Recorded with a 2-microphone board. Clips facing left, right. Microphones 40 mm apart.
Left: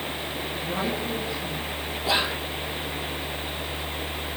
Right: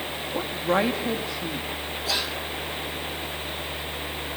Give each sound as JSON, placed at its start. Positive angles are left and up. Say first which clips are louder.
{"t": 0.3, "sound": "a woman speaking", "louder": "right 9 dB", "side_deg": -80, "distance_m": 4.0}
{"t": 2.0, "sound": "whispering", "louder": "left 5 dB", "side_deg": 25, "distance_m": 1.4}